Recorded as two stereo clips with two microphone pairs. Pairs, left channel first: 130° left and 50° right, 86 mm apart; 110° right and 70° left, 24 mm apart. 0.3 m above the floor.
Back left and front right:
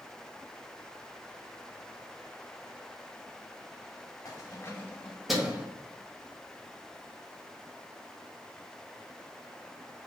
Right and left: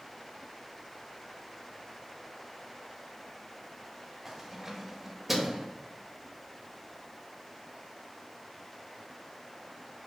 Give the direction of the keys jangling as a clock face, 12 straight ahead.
7 o'clock.